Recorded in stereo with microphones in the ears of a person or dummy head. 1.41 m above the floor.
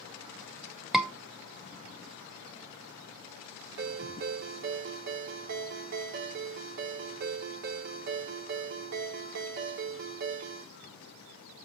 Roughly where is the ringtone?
Right.